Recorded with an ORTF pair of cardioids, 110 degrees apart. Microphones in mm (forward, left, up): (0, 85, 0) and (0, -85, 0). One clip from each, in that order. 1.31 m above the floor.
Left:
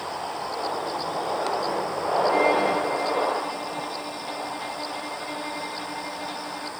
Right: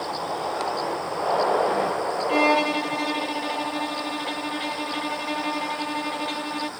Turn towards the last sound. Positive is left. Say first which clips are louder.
# right 3 dB
turn(degrees=-50)